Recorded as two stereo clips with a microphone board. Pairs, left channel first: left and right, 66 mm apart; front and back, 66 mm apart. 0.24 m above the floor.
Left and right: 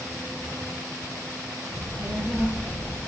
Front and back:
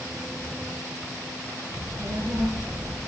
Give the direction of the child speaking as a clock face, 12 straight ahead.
5 o'clock.